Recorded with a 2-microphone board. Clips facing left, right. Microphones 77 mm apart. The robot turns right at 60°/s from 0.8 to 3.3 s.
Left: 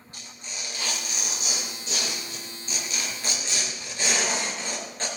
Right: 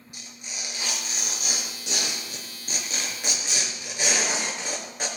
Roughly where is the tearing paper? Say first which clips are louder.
Left 1 dB; behind.